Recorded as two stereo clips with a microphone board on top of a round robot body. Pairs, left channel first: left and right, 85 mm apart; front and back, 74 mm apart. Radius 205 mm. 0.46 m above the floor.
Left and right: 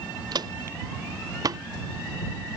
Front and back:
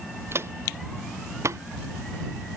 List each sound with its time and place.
0.3 s footsteps: 125° right; by 1.6 s 135° right